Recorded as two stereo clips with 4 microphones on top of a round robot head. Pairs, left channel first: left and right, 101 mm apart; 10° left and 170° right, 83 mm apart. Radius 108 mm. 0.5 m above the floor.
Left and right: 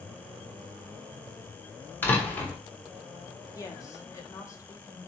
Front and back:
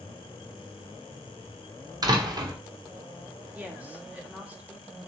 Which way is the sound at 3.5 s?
125° left.